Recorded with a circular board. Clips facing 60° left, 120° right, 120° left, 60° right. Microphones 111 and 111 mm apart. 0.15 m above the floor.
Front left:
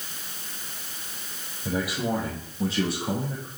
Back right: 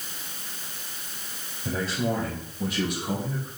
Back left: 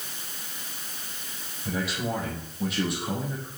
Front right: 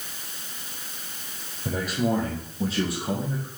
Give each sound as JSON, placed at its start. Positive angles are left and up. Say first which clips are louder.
{"t": 1.6, "sound": "a man speaking", "louder": "even, front right 4 dB", "azimuth_deg": -20, "distance_m": 4.0}